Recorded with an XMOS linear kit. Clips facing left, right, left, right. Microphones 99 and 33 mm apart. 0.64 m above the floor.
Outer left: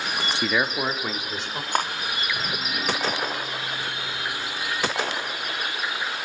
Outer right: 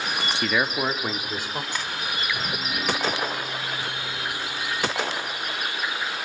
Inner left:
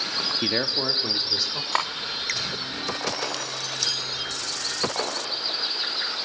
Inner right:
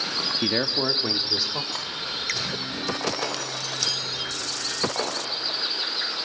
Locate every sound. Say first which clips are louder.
0.4 s a man speaking: even, inner right 2 dB; 10° left (ahead or behind), 0.8 m; by 1.6 s 10° right (ahead or behind), 2 m
1.7 s cutlery clinking: outer left 7 dB, inner left 7 dB; 55° left (ahead or behind), 0.6 m